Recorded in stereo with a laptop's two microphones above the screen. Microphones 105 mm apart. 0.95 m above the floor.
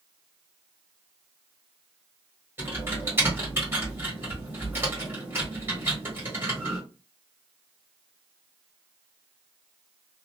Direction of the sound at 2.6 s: 20° right (ahead or behind).